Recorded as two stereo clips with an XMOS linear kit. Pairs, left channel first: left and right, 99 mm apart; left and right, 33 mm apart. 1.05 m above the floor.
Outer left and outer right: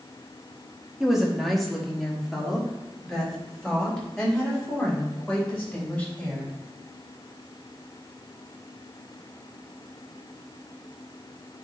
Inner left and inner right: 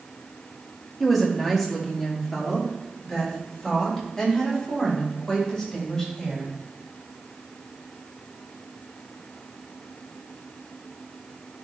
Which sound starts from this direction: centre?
A woman speaking, at 1.0 s.